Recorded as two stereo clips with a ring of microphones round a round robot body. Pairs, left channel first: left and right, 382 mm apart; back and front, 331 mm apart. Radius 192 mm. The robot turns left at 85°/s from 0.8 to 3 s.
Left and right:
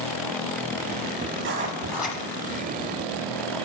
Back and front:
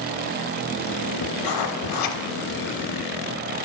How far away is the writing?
About 0.6 m.